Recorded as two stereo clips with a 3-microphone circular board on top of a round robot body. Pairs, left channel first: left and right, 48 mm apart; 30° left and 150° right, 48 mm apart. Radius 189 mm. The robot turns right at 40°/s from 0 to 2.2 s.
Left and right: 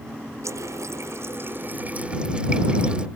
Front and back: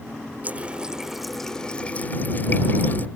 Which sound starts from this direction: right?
A running tap, at 0.4 s.